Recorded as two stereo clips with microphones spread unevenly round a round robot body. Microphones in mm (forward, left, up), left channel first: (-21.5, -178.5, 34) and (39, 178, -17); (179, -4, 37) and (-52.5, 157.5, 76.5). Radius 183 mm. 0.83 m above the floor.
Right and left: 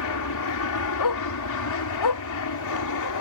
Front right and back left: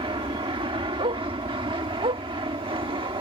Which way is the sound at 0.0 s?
140° right.